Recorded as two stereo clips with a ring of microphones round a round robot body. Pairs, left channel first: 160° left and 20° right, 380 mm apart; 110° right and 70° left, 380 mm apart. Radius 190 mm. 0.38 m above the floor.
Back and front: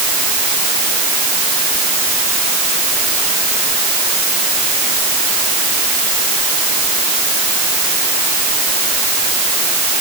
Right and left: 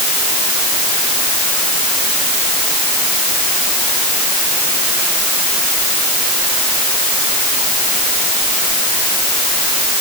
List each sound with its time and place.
Only background noise.